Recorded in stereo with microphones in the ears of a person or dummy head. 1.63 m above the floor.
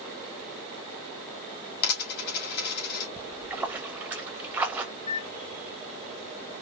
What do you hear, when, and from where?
1.8 s a dropped coin: 60° left (ahead or behind), 1.9 m
3.2 s a splash: 10° right (ahead or behind), 1.0 m
5.0 s a microwave: 30° left (ahead or behind), 0.9 m